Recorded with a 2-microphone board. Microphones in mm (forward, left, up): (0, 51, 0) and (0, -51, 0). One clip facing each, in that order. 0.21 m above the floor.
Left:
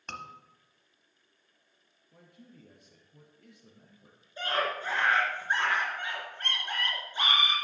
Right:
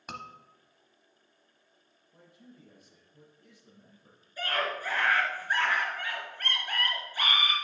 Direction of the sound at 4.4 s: 25° left (ahead or behind).